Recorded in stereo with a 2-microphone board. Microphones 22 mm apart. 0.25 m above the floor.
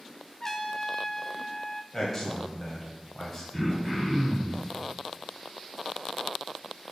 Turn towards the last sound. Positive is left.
turn(degrees=-5)  # may be behind; listen again after turning